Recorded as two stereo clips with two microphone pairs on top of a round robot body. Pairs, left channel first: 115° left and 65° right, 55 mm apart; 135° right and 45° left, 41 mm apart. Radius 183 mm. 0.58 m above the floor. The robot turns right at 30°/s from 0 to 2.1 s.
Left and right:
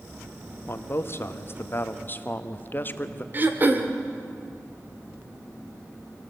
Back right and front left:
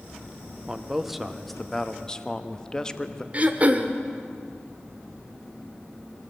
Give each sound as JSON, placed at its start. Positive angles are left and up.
{"t": 0.7, "sound": "a man speaking", "azimuth_deg": 100, "distance_m": 1.5}
{"t": 3.3, "sound": "throat clearing", "azimuth_deg": -10, "distance_m": 1.5}